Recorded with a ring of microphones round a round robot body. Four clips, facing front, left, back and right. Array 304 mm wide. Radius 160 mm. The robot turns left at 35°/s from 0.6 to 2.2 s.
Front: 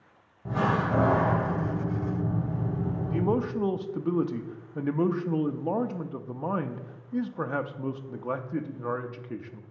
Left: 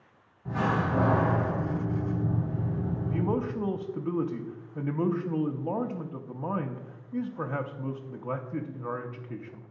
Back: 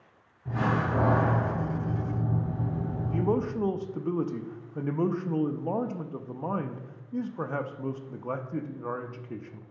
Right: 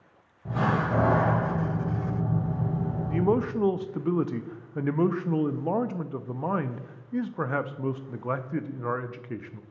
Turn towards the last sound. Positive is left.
turn(degrees=-75)